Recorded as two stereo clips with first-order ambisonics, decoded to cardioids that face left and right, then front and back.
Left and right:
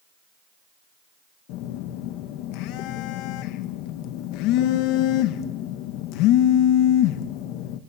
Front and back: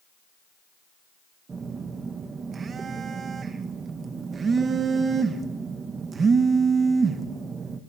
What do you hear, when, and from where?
1.5 s a phone buzzing: 110° left, 1.4 m